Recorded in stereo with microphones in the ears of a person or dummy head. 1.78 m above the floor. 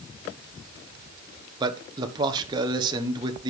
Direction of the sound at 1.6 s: 15° right (ahead or behind).